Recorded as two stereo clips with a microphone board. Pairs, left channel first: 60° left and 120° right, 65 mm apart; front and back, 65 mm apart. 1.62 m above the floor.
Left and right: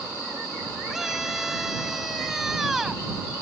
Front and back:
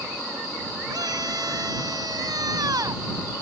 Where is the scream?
155° left.